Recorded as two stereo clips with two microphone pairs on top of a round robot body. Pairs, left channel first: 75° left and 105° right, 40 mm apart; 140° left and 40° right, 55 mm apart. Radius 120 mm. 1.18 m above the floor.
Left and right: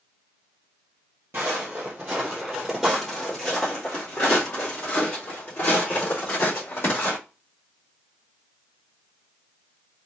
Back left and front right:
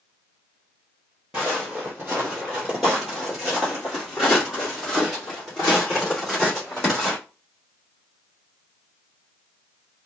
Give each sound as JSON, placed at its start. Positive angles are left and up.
{"t": 1.3, "sound": "footsteps", "azimuth_deg": -90, "distance_m": 1.5}